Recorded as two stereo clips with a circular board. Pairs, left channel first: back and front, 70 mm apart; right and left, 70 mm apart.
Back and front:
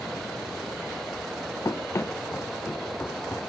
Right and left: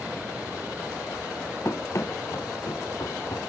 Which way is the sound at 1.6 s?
140° right.